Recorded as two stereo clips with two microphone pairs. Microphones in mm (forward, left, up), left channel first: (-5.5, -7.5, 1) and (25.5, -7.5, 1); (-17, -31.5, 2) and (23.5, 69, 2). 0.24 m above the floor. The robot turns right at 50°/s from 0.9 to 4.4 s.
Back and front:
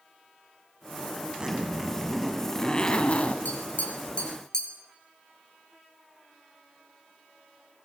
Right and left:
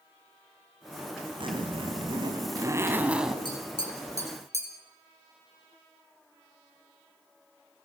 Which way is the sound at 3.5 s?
160° right.